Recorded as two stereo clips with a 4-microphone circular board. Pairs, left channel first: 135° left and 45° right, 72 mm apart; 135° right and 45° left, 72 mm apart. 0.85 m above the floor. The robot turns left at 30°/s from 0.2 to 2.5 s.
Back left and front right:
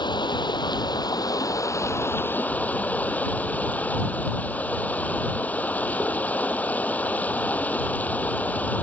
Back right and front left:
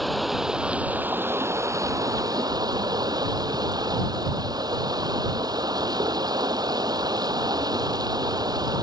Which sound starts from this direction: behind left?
Running water, at 0.0 s.